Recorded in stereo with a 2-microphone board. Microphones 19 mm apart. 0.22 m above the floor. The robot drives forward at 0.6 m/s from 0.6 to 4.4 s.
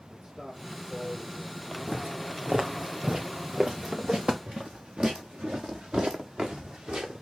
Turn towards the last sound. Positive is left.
turn(degrees=-75)  # may be behind; listen again after turning